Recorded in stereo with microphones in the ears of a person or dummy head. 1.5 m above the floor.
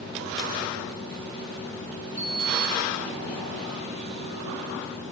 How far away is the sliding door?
About 0.5 m.